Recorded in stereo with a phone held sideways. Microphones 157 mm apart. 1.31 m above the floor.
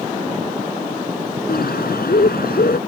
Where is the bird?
75° left (ahead or behind).